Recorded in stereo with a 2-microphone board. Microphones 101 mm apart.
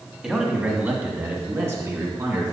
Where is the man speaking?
10° right (ahead or behind), 1.8 m; by 2.5 s 30° right (ahead or behind), 3 m.